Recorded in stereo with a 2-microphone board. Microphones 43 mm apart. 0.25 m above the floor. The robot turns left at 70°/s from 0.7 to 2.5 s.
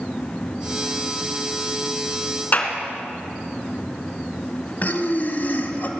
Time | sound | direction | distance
2.5 | a clap | 35° left (ahead or behind) | 3 m
4.8 | breathing | 45° left (ahead or behind) | 1.9 m